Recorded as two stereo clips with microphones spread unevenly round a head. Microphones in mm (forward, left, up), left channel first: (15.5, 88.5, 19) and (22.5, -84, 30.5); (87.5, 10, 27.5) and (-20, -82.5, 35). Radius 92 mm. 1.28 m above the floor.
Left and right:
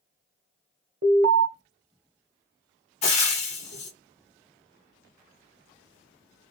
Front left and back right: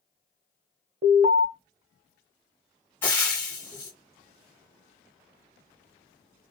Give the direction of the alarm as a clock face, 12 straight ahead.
4 o'clock.